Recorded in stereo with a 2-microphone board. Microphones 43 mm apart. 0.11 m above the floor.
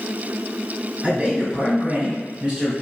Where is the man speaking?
25° right (ahead or behind), 1.2 m.